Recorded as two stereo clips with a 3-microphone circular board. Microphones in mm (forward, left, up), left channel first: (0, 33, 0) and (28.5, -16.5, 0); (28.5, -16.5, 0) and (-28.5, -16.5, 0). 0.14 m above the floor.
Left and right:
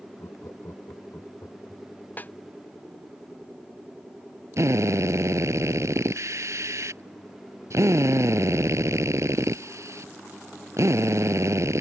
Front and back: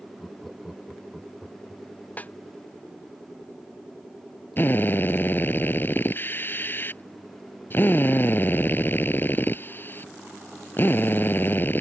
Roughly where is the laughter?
Left.